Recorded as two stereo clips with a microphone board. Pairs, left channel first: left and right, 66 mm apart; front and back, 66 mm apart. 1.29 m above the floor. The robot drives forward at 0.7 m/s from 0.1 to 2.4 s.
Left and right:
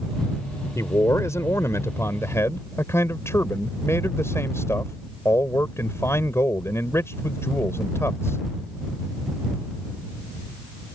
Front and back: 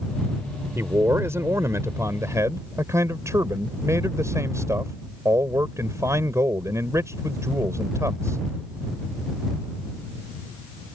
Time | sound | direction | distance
0.8 | a man speaking | 130° left | ?